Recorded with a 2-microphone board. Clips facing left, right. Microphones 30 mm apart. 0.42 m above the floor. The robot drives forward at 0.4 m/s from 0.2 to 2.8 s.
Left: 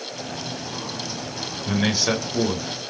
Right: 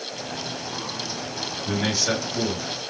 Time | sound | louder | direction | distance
1.7 | a man speaking | left 3 dB | 25° left (ahead or behind) | 1.9 m